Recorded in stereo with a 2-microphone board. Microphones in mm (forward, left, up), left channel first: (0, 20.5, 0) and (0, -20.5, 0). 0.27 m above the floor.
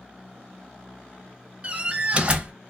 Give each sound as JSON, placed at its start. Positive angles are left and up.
{"t": 1.6, "sound": "a door slam", "side_deg": -25, "distance_m": 0.9}